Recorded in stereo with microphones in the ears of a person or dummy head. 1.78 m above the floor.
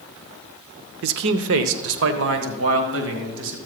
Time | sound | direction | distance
1.0 | a man speaking | 55° right (ahead or behind) | 0.7 m